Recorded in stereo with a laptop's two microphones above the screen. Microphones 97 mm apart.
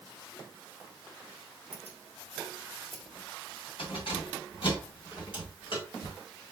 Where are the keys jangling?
85° left, 1.1 m; by 6.2 s 55° left (ahead or behind), 3.5 m.